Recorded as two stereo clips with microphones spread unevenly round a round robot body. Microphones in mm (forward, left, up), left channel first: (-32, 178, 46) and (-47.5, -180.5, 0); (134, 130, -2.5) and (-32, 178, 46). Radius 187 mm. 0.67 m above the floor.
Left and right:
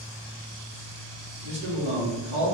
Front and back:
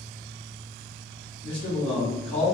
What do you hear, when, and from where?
1.4 s a man speaking: 60° right, 1.1 m